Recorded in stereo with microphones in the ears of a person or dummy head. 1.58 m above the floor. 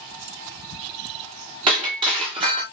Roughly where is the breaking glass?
Right.